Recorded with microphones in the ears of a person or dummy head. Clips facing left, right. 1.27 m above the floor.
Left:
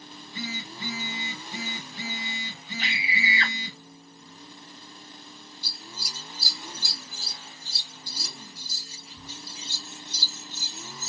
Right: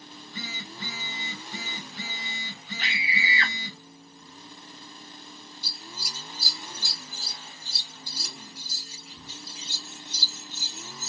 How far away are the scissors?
About 3 m.